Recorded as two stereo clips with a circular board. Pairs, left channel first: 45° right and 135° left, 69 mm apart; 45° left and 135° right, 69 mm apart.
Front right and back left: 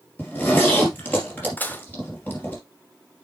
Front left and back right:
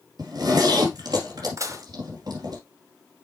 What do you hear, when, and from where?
0.2 s a zipper: 110° right, 2.5 m
1.6 s dishes clattering: 105° right, 0.9 m